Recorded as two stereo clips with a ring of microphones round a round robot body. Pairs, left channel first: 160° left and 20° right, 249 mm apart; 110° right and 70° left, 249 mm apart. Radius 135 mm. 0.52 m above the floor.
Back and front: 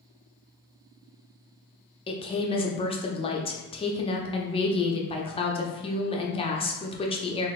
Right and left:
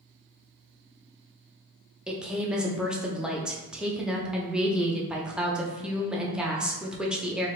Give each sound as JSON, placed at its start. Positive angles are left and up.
{"t": 2.1, "sound": "a woman speaking", "azimuth_deg": 150, "distance_m": 0.6}